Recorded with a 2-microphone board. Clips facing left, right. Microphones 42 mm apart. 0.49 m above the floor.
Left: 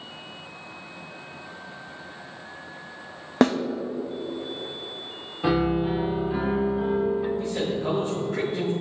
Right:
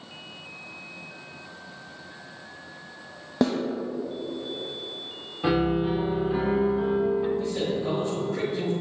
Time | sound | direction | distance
3.4 | a snare drum | 70° left (ahead or behind) | 0.6 m
5.4 | a piano | centre (ahead or behind) | 1.0 m
7.4 | a man speaking | 30° left (ahead or behind) | 1.9 m